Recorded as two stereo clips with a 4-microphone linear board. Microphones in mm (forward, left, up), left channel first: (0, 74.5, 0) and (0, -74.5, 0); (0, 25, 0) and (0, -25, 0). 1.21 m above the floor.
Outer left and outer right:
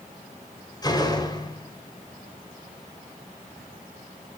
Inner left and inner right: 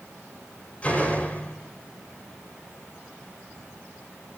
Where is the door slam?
25° left (ahead or behind), 4.5 m.